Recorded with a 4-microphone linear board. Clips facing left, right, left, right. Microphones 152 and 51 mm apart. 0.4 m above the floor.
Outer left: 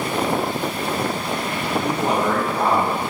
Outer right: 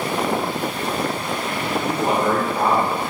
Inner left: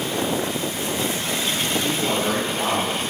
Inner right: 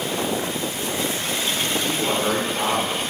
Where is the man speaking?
5° right (ahead or behind), 1.2 m.